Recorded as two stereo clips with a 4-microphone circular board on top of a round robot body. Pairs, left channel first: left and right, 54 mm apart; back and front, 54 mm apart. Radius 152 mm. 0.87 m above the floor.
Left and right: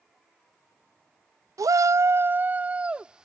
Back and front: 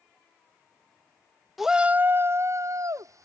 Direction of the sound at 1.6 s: 85° right.